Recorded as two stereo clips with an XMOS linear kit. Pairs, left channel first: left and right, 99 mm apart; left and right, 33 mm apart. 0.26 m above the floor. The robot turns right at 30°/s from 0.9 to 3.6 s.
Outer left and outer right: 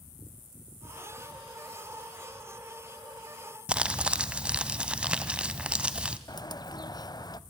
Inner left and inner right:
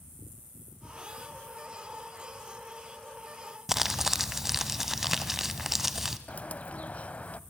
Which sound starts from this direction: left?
A bird, at 6.3 s.